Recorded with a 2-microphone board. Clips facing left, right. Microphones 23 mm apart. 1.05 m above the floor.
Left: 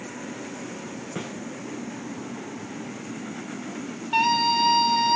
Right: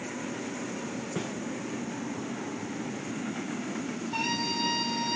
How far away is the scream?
About 3.5 m.